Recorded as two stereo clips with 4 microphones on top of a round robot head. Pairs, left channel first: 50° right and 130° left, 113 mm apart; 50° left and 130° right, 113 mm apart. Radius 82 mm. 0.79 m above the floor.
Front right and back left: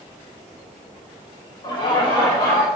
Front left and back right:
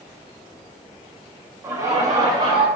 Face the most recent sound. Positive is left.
turn(degrees=-90)